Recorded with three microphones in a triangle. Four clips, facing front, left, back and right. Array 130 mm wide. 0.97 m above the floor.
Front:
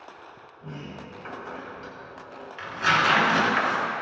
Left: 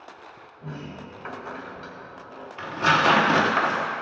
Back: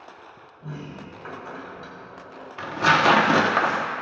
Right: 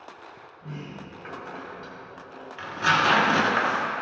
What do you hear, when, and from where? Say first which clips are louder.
0.6 s a sliding door: left 2 dB, back 2 dB; 95° left, 2.0 m
2.6 s tearing paper: left 2 dB, back 4 dB; 155° left, 1.0 m